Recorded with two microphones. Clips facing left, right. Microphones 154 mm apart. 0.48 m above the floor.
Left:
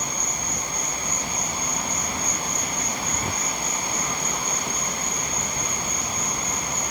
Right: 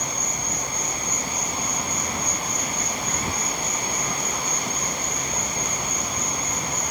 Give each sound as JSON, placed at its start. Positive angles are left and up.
{"t": 0.0, "sound": "an insect", "side_deg": -20, "distance_m": 2.0}